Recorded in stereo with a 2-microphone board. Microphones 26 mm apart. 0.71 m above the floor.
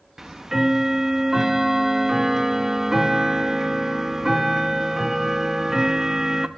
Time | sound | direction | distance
0.2 | ticking | 15° right (ahead or behind) | 0.6 m